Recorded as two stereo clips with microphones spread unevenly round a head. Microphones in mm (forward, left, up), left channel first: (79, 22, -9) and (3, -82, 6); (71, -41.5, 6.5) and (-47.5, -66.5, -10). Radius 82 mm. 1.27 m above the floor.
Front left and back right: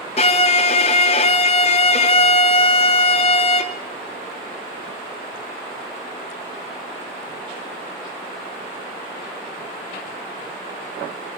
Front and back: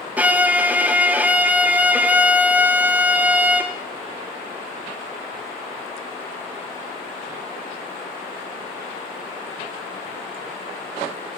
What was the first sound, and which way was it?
A violin, 110° left.